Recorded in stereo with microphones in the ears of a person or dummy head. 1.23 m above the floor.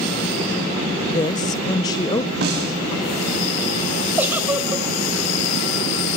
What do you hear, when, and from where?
1.1 s a woman speaking: 20° left (ahead or behind), 0.9 m
2.4 s a snare drum: 70° right (ahead or behind), 6.5 m
4.2 s a giggle: 10° right (ahead or behind), 3 m